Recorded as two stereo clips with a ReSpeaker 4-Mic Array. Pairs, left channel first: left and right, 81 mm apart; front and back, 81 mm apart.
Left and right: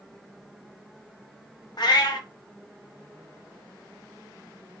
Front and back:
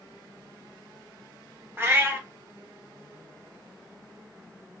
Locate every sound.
1.8 s a cat meowing: 115° left, 0.6 m